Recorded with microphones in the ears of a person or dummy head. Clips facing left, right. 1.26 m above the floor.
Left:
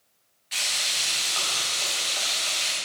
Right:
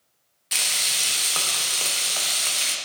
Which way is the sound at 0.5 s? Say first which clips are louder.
Right 1 dB; 50° right (ahead or behind).